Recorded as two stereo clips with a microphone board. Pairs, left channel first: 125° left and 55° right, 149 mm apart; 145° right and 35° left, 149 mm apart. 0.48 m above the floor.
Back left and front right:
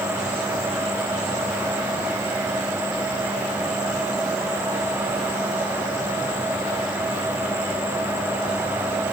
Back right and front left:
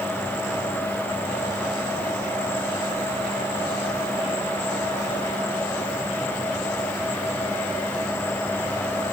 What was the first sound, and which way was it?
Only background noise.